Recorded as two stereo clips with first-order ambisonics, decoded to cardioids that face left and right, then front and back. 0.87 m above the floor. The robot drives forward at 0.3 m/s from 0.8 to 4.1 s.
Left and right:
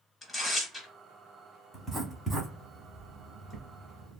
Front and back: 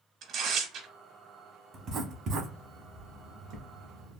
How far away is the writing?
About 0.8 m.